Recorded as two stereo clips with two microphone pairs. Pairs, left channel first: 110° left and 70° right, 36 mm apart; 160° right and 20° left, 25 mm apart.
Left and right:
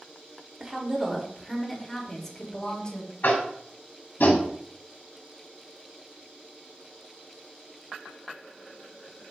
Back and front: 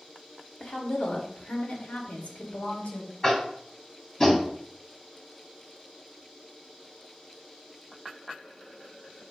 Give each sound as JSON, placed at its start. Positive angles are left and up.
{"t": 0.6, "sound": "a woman speaking", "azimuth_deg": -140, "distance_m": 2.0}
{"t": 3.2, "sound": "tapping", "azimuth_deg": 130, "distance_m": 2.0}